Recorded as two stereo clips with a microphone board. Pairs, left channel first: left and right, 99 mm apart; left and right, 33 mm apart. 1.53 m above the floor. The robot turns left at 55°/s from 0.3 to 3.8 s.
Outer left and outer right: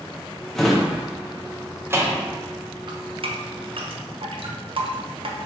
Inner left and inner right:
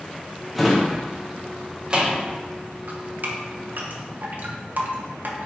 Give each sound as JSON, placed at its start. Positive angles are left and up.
{"t": 0.6, "sound": "a drawer", "side_deg": 5, "distance_m": 0.7}
{"t": 2.9, "sound": "dripping", "side_deg": -50, "distance_m": 0.7}